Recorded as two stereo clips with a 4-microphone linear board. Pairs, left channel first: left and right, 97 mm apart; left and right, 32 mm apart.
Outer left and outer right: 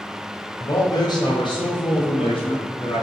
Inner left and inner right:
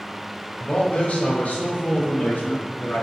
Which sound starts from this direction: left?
A man speaking, at 0.6 s.